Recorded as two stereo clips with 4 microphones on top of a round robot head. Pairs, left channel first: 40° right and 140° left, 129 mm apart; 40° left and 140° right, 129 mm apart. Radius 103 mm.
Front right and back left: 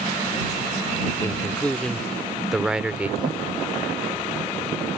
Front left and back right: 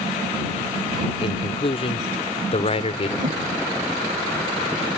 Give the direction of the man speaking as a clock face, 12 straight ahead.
11 o'clock.